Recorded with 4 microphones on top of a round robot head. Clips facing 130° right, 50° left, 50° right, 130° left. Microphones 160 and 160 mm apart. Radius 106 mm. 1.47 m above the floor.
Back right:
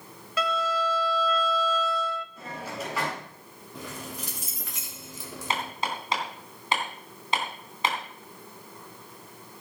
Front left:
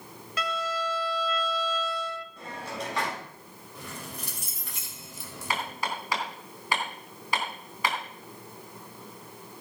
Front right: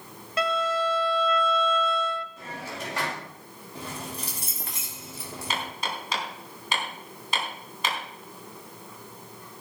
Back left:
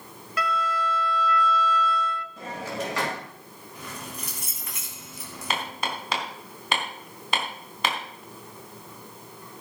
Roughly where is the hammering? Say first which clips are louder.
Back right 1 dB, back left 3 dB; behind.